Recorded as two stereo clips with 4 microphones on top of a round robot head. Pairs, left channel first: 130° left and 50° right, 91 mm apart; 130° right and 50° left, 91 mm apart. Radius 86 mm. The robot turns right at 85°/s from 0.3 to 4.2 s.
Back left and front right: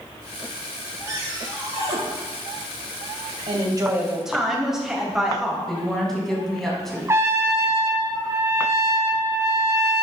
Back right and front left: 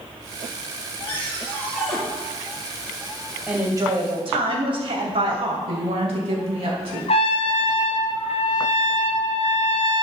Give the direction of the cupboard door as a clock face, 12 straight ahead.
4 o'clock.